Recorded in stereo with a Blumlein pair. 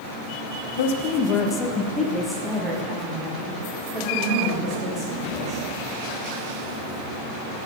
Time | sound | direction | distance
0.8 | a woman speaking | 60° left | 0.6 m